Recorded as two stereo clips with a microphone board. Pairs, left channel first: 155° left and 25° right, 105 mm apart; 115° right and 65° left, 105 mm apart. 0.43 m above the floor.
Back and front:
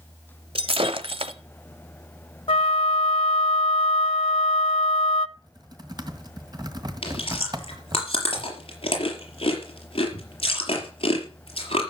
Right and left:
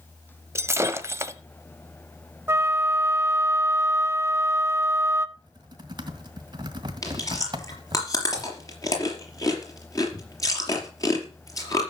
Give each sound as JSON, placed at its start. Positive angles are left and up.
{"t": 0.6, "sound": "breaking glass", "azimuth_deg": 5, "distance_m": 1.1}
{"t": 2.5, "sound": "a flute", "azimuth_deg": 135, "distance_m": 0.6}
{"t": 5.4, "sound": "typing on a keyboard", "azimuth_deg": 25, "distance_m": 1.9}
{"t": 7.0, "sound": "chewing", "azimuth_deg": -170, "distance_m": 5.0}